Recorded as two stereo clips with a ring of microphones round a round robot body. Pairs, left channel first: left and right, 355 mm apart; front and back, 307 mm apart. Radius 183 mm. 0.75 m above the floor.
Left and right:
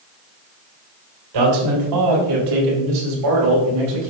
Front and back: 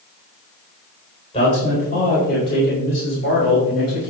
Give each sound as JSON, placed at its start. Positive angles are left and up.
{"t": 1.3, "sound": "a man speaking", "azimuth_deg": -75, "distance_m": 4.0}